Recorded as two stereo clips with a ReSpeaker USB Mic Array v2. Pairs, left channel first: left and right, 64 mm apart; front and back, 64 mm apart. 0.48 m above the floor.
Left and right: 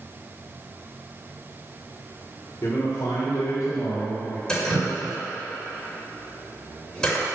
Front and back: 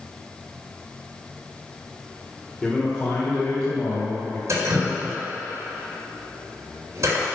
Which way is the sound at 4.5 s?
170° left.